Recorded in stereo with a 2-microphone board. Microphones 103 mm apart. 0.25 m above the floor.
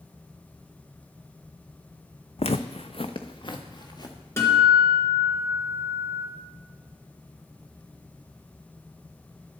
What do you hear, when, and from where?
2.4 s footsteps: 70° left (ahead or behind), 0.6 m; by 4.2 s 40° left (ahead or behind), 1.9 m
4.4 s a guitar: 25° left (ahead or behind), 2.5 m